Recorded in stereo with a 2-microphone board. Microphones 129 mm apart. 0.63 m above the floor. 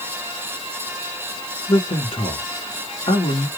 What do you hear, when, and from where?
1.7 s a man speaking: 45° left (ahead or behind), 1.6 m